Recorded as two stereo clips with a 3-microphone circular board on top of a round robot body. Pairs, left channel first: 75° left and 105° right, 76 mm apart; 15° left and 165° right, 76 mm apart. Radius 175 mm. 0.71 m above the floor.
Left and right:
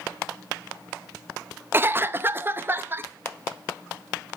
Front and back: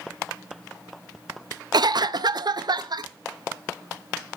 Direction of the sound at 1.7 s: 165° right.